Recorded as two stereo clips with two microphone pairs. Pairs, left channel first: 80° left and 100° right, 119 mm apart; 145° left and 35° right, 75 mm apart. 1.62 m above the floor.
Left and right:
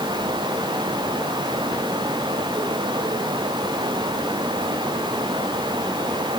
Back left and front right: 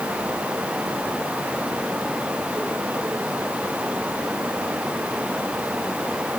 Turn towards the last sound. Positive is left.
No sound to turn to.